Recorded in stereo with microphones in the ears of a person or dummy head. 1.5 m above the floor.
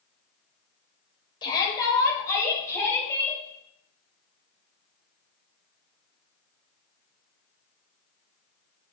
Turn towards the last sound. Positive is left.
turn(degrees=10)  # may be behind; listen again after turning